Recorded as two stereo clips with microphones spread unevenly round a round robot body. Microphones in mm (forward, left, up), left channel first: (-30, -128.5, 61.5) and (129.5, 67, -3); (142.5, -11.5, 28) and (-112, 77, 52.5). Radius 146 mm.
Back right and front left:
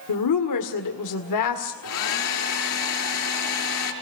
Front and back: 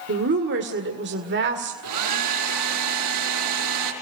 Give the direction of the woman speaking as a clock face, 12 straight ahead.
5 o'clock.